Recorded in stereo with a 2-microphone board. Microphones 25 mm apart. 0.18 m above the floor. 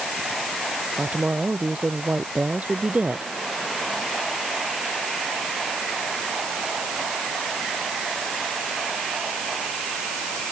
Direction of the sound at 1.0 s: 75° right (ahead or behind).